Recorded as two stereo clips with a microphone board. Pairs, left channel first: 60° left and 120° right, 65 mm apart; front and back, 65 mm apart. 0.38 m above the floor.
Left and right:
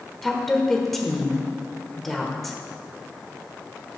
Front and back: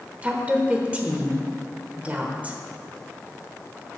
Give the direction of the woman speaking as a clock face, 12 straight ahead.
7 o'clock.